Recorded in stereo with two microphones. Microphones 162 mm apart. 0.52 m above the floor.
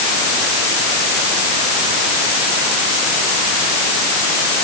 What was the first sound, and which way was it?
Only background noise.